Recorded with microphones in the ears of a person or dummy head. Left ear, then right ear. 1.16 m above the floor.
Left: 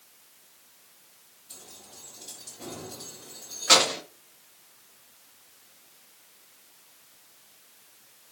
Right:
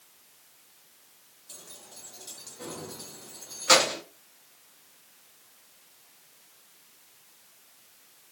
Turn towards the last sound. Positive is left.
turn(degrees=-5)  # may be behind; listen again after turning